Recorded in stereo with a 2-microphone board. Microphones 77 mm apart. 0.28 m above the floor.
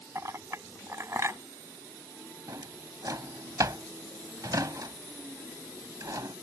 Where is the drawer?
55° right (ahead or behind).